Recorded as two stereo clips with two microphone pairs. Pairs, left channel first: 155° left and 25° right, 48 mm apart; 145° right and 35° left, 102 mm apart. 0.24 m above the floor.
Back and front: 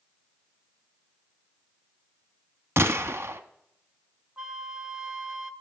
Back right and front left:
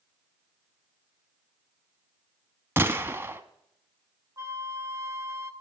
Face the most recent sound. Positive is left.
turn(degrees=35)